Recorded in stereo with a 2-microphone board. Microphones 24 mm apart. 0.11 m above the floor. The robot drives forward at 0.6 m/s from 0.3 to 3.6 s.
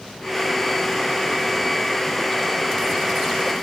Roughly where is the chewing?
No chewing in this recording.